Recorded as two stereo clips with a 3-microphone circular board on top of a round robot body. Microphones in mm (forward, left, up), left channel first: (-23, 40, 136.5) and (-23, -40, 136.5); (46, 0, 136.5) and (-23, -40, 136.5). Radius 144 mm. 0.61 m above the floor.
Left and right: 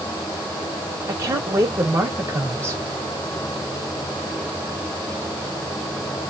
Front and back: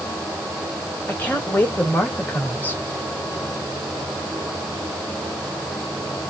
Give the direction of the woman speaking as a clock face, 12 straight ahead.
1 o'clock.